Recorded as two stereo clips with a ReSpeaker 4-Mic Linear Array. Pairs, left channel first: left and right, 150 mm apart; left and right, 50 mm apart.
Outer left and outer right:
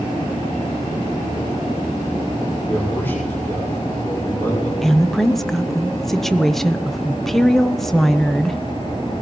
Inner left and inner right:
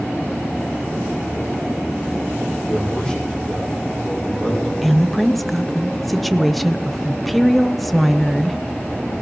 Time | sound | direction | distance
2.6 | a man speaking | 15° left (ahead or behind) | 5.5 m
4.8 | a woman speaking | centre (ahead or behind) | 0.7 m